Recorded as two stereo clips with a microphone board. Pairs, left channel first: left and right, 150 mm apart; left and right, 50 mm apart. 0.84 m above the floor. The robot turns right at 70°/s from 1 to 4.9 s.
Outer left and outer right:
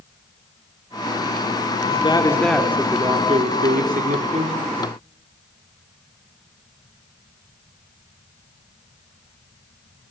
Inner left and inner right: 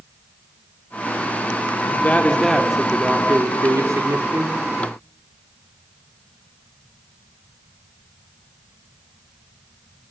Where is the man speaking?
135° left, 2.5 m; by 4.6 s 40° right, 2.5 m.